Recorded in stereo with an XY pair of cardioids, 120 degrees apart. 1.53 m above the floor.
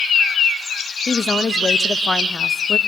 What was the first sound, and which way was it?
A woman speaking, 25° left.